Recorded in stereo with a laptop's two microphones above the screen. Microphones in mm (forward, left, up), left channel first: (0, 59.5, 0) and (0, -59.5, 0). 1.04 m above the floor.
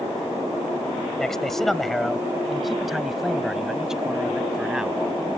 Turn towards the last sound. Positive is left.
turn(degrees=-5)  # may be behind; listen again after turning